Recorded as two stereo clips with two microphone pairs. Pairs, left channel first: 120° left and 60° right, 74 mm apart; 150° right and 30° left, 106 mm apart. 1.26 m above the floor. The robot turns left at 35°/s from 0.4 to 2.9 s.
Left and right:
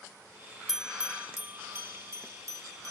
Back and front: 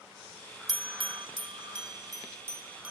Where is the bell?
30° left, 1.1 m; by 2.9 s 50° right, 1.1 m.